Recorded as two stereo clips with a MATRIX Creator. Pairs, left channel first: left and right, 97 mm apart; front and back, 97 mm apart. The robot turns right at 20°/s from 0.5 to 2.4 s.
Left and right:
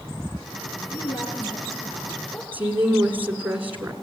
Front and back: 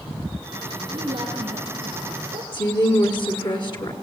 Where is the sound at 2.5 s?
20° right, 1.9 m.